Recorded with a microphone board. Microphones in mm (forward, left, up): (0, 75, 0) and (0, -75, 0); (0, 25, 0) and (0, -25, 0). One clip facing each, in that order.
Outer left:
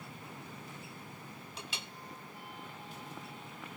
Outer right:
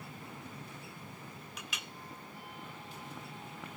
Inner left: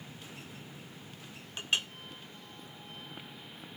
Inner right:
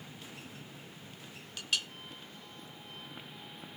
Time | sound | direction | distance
1.6 | a clink | 30° left (ahead or behind) | 0.7 m